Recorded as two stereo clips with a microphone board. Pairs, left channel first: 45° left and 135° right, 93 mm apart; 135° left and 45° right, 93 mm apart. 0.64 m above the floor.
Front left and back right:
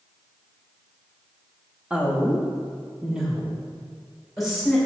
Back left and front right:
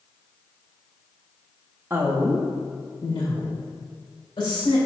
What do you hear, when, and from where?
1.9 s a woman speaking: 75° right, 0.6 m; by 4.8 s 135° left, 2 m